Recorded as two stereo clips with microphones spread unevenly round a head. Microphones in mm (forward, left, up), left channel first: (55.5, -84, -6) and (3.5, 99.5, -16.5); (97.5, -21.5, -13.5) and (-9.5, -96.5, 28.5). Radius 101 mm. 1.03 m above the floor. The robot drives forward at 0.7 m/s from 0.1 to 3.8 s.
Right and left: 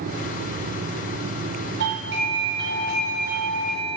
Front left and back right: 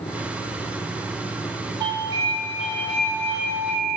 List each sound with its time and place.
1.8 s a doorbell: 140° left, 2.5 m; by 4.0 s 150° left, 4 m